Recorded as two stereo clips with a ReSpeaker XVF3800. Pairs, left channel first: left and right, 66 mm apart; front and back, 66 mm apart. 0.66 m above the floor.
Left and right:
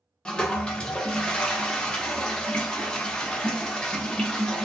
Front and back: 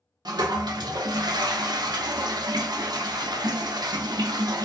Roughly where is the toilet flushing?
Behind.